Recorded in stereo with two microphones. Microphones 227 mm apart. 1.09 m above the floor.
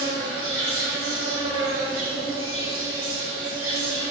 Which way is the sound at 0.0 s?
70° right (ahead or behind).